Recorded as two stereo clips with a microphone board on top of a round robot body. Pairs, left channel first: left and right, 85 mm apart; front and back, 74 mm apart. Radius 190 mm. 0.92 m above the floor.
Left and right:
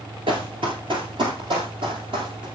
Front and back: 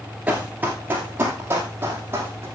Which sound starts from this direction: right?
Running footsteps, at 0.3 s.